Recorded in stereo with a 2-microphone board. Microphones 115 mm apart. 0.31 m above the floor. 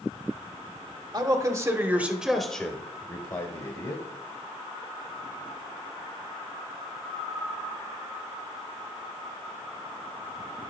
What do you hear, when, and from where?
1.1 s a man speaking: 35° right (ahead or behind), 1.0 m; by 4.0 s 45° left (ahead or behind), 1.3 m